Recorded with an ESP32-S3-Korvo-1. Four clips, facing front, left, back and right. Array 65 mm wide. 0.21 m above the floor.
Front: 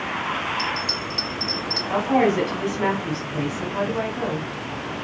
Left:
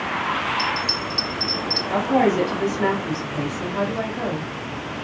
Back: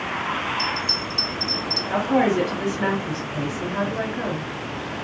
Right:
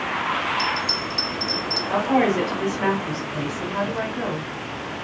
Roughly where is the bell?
Ahead.